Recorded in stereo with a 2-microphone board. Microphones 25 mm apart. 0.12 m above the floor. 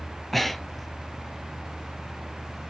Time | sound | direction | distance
0.3 | breathing | 5° left (ahead or behind) | 0.5 m